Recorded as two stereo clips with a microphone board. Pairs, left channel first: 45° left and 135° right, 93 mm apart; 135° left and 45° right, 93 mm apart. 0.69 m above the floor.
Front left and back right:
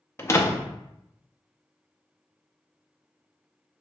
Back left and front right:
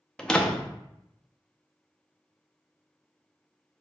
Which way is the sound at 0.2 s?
60° left.